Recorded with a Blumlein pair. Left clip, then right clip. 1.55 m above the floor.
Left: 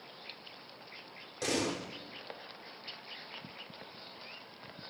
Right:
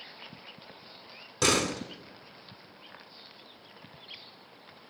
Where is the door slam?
60° right, 3.5 m.